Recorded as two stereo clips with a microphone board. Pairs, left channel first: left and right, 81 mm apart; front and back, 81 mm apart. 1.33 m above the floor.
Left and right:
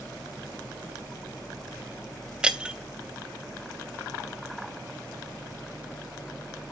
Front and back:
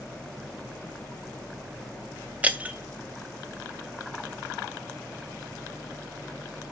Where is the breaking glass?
145° right, 0.8 m.